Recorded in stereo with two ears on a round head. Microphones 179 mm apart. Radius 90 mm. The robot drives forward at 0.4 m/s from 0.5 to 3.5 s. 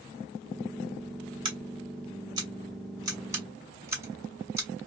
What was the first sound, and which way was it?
Scissors, 25° right (ahead or behind).